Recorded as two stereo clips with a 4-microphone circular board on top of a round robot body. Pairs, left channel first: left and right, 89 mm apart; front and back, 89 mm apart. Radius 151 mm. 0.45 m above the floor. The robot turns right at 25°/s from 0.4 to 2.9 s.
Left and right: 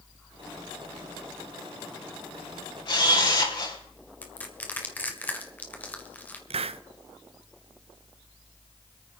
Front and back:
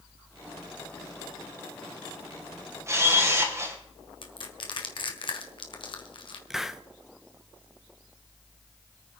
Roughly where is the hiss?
Right.